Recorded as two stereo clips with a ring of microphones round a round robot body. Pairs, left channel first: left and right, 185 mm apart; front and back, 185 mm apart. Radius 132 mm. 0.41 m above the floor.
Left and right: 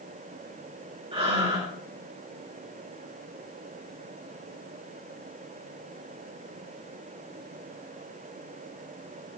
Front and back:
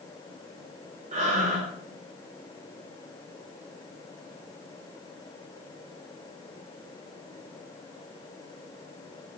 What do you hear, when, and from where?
1.1 s breathing: 140° right, 1.7 m